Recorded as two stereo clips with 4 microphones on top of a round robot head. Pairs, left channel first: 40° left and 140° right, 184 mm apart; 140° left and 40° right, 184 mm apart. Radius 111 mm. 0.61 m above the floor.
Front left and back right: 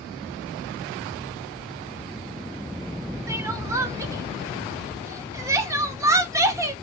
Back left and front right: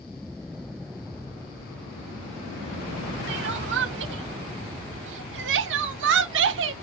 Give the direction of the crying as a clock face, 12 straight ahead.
2 o'clock.